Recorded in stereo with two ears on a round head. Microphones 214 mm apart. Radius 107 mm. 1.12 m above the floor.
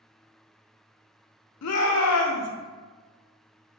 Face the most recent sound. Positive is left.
turn(degrees=70)  # may be behind; listen again after turning